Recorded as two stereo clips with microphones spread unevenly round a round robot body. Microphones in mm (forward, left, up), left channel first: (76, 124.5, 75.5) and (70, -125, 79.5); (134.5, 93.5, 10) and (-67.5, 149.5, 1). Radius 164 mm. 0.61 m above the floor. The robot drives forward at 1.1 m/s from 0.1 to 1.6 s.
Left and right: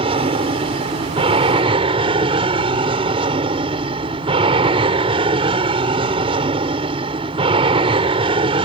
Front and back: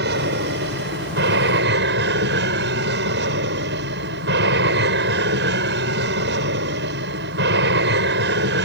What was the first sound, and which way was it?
An aircraft, 160° right.